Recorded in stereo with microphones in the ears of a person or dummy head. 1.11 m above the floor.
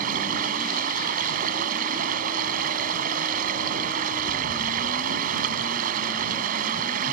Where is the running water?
55° right (ahead or behind).